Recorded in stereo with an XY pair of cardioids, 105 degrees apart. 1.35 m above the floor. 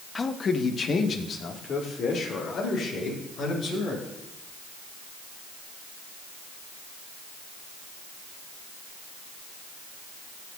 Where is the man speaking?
30° left, 0.7 m; by 4.1 s 60° left, 4 m.